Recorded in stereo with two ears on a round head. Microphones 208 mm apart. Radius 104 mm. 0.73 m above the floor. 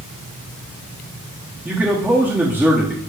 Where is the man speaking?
10° right (ahead or behind), 1.3 m.